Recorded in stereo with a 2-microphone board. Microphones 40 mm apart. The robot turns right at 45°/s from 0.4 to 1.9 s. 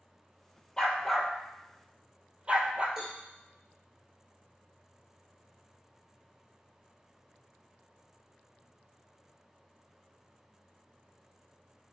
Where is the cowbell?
15° right (ahead or behind), 3 m.